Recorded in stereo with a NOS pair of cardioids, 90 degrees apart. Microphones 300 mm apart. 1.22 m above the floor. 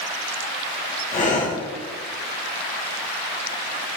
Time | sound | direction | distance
1.1 | breathing | 25° left | 0.8 m